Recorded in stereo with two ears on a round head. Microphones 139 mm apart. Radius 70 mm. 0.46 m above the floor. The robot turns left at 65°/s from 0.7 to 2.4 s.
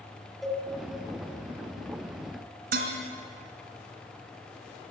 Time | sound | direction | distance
0.4 | a cowbell | centre (ahead or behind) | 3 m
2.7 | dishes clattering | 60° right (ahead or behind) | 3.5 m